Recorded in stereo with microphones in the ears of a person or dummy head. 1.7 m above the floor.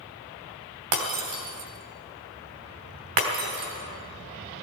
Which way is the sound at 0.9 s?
50° right (ahead or behind).